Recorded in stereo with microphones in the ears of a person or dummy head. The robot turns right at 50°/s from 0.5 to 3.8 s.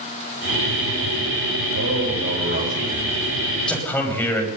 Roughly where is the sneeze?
I don't hear a sneeze.